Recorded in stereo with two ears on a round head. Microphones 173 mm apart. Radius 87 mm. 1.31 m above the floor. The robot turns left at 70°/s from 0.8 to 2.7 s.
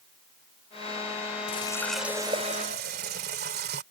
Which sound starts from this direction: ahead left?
A running tap, at 1.5 s.